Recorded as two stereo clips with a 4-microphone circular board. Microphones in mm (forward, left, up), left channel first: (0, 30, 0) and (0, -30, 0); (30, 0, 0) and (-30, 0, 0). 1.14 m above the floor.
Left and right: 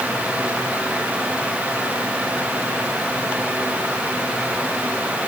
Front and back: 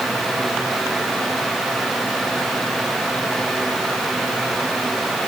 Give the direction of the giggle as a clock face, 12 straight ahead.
I don't hear a giggle.